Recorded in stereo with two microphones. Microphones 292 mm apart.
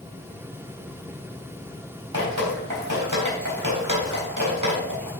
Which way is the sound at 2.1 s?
80° right.